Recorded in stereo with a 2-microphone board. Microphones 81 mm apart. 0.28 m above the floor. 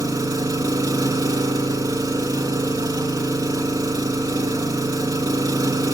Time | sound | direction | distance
0.0 | an engine running | 45° right (ahead or behind) | 0.8 m